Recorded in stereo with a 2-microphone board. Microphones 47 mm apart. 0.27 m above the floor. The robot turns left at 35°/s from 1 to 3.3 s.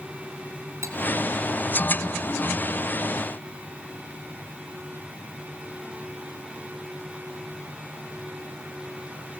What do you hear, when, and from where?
0.8 s cutlery clinking: 65° right (ahead or behind), 4 m